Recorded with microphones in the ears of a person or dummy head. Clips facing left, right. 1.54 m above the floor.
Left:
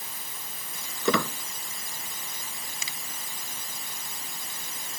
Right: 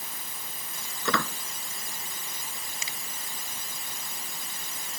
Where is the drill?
I don't hear a drill.